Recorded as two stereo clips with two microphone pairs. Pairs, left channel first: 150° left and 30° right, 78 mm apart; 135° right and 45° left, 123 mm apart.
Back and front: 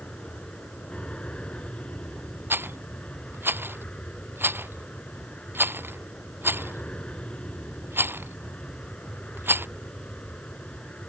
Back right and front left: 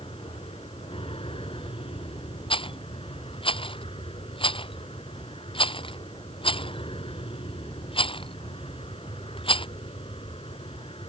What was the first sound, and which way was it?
An aircraft, 140° right.